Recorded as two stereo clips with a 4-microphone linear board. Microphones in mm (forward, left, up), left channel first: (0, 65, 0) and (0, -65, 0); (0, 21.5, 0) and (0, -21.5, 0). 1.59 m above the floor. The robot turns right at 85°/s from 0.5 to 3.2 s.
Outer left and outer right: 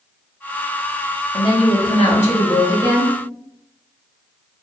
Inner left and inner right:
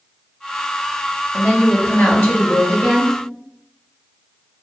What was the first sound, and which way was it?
A woman speaking, 30° left.